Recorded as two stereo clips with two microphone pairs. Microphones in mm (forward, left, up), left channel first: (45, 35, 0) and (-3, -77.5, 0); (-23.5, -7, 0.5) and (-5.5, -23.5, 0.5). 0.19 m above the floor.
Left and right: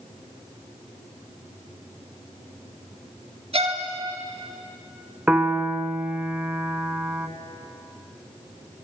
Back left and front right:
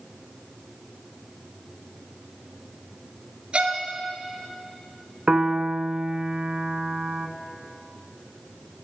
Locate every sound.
3.5 s a violin: 80° right, 1.0 m
5.3 s a piano: 40° right, 0.5 m